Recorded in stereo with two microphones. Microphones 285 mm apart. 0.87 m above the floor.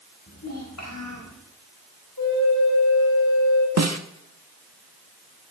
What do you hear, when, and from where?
0.3 s a child speaking: 75° left (ahead or behind), 4 m; by 1.4 s 70° left (ahead or behind), 3.5 m
2.2 s a flute: 80° left, 4 m
3.8 s a snare drum: 65° right (ahead or behind), 1.0 m